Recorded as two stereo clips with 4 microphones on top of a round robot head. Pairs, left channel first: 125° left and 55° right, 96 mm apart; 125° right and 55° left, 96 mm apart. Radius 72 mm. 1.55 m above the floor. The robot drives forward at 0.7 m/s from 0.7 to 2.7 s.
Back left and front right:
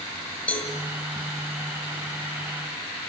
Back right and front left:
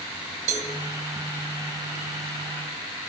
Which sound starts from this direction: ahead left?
A cowbell, at 0.5 s.